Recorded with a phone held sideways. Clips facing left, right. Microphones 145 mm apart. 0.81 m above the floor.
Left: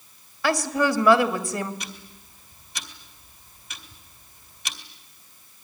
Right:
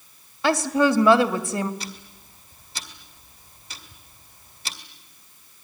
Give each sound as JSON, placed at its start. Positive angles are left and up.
{"t": 0.4, "sound": "a woman speaking", "side_deg": -20, "distance_m": 2.0}
{"t": 1.8, "sound": "ticking", "side_deg": -30, "distance_m": 2.0}